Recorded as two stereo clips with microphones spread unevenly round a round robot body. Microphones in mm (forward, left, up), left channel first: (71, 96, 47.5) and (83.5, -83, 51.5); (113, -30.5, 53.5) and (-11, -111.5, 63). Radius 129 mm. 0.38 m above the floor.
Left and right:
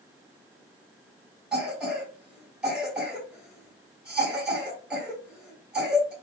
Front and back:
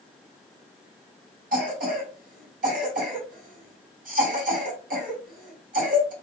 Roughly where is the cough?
Behind.